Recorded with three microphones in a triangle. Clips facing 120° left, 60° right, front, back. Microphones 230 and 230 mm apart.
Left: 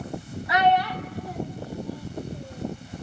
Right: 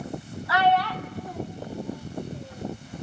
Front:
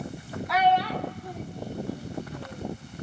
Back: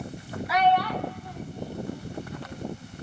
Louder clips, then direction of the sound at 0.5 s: Left 1 dB, back 1 dB; 110° left.